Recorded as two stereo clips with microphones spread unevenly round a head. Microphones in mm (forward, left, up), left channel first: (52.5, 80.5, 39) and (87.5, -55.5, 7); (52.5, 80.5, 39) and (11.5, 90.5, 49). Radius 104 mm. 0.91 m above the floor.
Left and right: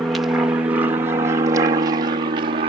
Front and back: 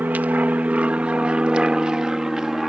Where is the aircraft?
150° right; by 2.7 s 110° right.